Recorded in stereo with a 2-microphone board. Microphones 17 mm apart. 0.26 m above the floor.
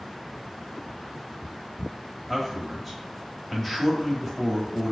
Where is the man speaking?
10° left (ahead or behind), 0.9 m.